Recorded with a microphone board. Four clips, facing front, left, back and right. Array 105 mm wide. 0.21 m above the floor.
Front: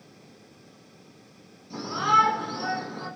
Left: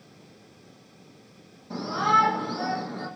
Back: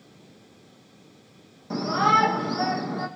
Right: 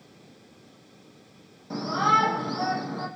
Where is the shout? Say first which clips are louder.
Even, back 2 dB; 160° right, 8.5 m.